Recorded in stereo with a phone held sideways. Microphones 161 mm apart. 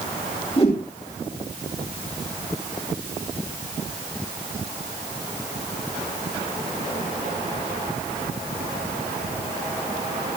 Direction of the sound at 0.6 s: 35° left (ahead or behind).